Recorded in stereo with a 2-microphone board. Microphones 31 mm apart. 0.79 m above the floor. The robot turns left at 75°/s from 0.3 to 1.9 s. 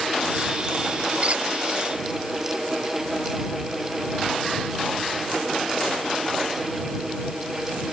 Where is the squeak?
45° right (ahead or behind); by 1.4 s 60° right (ahead or behind).